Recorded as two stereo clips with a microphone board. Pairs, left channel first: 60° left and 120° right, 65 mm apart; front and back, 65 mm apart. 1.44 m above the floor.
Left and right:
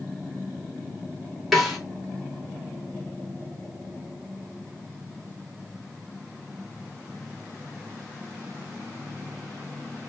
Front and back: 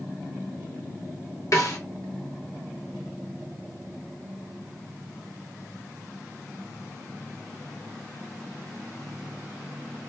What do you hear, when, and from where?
1.5 s a snare drum: 30° right, 1.9 m